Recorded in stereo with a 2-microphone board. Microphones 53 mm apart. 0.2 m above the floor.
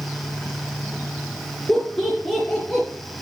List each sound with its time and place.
1.7 s laughter: centre (ahead or behind), 3 m; by 2.9 s 5° right (ahead or behind), 2.5 m